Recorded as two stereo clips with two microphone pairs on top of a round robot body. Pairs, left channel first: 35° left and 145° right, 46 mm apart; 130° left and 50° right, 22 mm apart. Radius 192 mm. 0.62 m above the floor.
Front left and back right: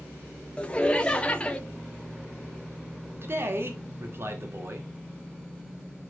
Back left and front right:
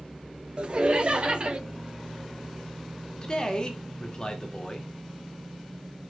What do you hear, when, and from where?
0.6 s laughter: 20° right, 1.3 m
3.2 s a man speaking: 175° right, 2 m